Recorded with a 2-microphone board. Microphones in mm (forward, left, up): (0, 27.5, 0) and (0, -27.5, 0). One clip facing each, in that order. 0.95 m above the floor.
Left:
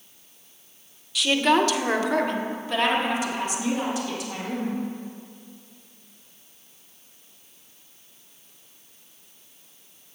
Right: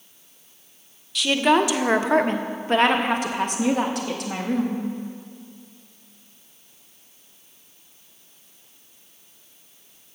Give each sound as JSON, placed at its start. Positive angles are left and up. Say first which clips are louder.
{"t": 1.1, "sound": "a woman speaking", "louder": "right 1 dB", "side_deg": 0, "distance_m": 0.9}